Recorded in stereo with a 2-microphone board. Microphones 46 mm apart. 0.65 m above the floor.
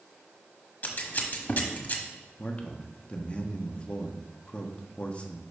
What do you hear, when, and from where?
0.8 s scissors: 40° left (ahead or behind), 1.2 m
2.4 s a man speaking: 25° left (ahead or behind), 0.8 m